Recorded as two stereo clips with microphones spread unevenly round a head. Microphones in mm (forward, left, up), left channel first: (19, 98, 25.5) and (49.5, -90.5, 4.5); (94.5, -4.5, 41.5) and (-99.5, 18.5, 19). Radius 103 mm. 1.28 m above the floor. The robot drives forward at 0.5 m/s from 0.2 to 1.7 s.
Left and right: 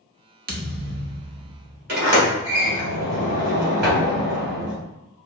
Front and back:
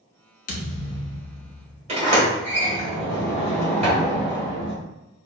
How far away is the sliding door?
About 2.0 m.